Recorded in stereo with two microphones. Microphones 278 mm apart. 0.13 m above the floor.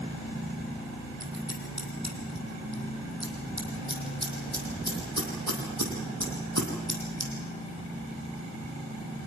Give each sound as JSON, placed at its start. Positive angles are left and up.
{"t": 1.2, "sound": "scissors", "side_deg": -65, "distance_m": 4.0}